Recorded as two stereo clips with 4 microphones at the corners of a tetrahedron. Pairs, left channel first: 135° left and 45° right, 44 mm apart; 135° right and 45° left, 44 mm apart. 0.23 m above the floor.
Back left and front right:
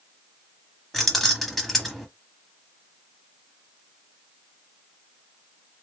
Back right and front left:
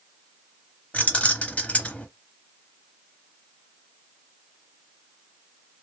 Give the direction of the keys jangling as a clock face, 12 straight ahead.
5 o'clock.